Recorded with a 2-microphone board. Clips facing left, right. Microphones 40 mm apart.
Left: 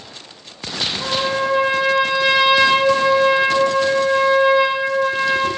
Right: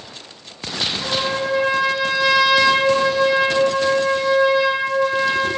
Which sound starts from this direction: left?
A trumpet, at 1.0 s.